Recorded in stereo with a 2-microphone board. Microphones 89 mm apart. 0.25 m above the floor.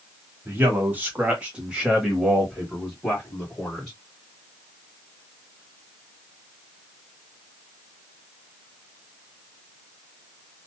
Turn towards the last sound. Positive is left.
turn(degrees=15)  # may be behind; listen again after turning